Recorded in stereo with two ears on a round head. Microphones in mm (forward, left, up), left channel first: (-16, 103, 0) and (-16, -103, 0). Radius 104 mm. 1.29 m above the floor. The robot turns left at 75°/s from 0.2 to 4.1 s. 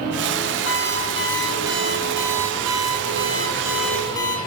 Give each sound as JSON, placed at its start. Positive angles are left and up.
{"t": 0.7, "sound": "an alarm clock", "azimuth_deg": 60, "distance_m": 9.5}